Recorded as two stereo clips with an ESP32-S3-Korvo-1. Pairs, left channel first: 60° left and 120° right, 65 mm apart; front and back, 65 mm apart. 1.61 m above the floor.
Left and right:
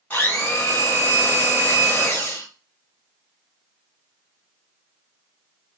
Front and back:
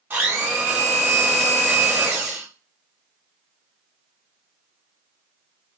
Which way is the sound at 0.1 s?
120° left.